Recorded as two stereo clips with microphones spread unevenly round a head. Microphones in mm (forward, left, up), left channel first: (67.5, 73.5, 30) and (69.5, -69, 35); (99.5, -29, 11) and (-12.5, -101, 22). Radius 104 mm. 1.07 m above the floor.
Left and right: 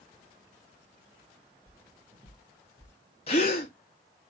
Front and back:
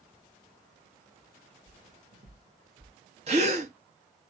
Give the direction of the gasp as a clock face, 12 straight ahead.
7 o'clock.